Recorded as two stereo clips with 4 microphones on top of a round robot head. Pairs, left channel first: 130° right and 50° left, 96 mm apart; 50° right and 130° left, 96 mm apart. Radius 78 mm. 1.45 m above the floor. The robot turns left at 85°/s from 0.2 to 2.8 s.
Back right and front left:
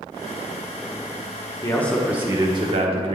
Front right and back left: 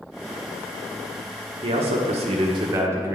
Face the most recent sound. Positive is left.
turn(degrees=70)